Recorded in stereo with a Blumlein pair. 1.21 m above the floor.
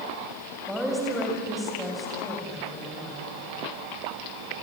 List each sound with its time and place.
0.7 s a woman speaking: straight ahead, 7.5 m